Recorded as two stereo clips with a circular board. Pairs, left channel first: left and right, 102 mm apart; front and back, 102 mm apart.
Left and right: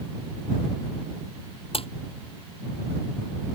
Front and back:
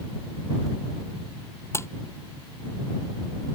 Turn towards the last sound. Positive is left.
turn(degrees=65)